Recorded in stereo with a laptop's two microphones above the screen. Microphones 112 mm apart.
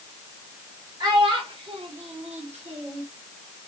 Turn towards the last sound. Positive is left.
turn(degrees=-50)  # may be behind; listen again after turning